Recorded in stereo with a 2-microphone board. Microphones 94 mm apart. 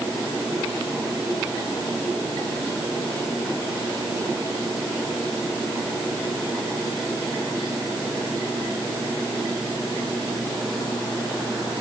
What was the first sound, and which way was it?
Only background noise.